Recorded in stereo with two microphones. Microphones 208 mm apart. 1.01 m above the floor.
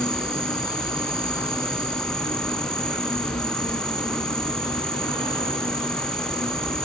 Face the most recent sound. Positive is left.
turn(degrees=20)  # may be behind; listen again after turning